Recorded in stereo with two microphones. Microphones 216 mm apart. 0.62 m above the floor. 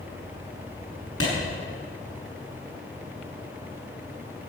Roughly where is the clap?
Left.